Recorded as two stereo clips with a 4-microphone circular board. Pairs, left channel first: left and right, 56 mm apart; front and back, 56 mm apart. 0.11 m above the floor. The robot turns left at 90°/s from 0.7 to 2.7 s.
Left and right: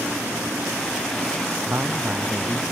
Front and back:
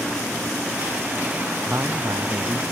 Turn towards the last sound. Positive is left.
turn(degrees=140)